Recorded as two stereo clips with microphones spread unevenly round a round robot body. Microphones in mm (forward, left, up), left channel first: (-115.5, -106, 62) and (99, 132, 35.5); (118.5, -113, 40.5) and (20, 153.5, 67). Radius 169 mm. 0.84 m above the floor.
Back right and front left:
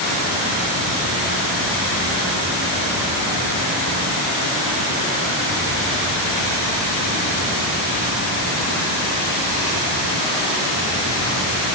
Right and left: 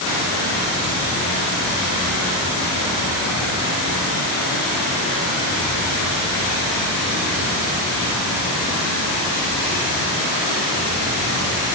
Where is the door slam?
No door slam in this recording.